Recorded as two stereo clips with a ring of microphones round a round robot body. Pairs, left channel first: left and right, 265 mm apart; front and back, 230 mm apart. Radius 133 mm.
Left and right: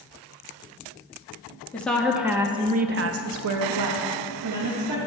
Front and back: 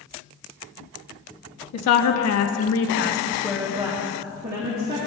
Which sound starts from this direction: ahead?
A woman speaking, at 1.7 s.